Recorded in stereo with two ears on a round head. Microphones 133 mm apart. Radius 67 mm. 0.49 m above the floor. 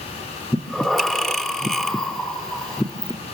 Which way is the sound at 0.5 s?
5° left (ahead or behind).